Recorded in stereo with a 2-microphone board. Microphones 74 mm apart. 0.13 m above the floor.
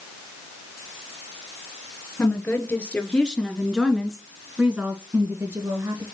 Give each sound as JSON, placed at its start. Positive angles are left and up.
{"t": 2.2, "sound": "a woman speaking", "side_deg": 30, "distance_m": 2.0}